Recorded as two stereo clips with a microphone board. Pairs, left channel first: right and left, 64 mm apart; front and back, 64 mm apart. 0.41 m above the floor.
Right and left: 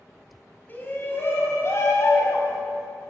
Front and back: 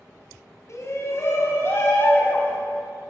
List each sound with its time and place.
0.7 s a shout: 35° right, 3 m; by 2.6 s 60° right, 3.5 m